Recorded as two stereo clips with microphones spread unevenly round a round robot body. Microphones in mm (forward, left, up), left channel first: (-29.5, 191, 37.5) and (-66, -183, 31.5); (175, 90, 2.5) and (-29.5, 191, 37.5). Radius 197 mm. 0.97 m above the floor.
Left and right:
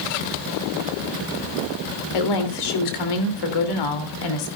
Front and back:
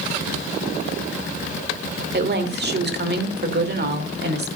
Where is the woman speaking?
110° left, 3 m.